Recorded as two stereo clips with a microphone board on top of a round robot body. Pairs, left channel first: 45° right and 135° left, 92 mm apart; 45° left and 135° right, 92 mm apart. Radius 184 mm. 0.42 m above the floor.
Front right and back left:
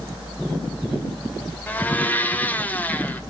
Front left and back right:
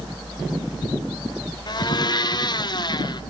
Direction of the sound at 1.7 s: 20° left.